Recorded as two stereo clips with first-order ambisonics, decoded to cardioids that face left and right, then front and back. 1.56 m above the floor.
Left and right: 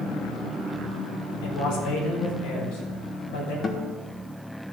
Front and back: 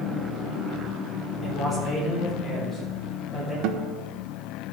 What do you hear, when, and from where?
1.4 s a man speaking: 80° left, 3.5 m; by 3.5 s 85° left, 6.5 m
3.6 s a guitar: 155° left, 1.0 m